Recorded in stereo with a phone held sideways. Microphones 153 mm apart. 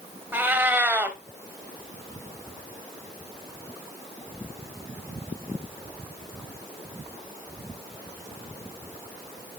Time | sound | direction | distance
0.3 | a cat meowing | 15° right (ahead or behind) | 0.8 m